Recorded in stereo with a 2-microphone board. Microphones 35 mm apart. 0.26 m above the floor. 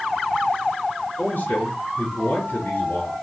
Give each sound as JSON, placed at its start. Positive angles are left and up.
{"t": 1.2, "sound": "a man speaking", "side_deg": 65, "distance_m": 3.5}